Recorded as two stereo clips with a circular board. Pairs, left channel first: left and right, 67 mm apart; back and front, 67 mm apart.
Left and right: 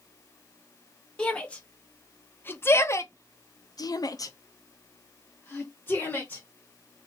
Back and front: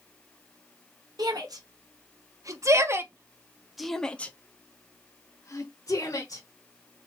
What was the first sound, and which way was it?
A shout, 15° left.